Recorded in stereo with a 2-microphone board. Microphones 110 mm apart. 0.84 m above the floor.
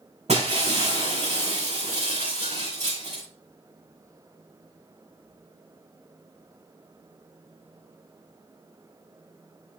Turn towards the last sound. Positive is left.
turn(degrees=-75)  # may be behind; listen again after turning